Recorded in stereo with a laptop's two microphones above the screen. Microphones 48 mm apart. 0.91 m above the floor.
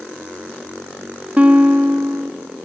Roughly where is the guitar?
Right.